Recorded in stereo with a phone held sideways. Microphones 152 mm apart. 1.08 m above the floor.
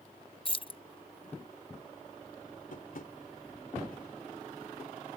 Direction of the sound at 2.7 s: 65° left (ahead or behind).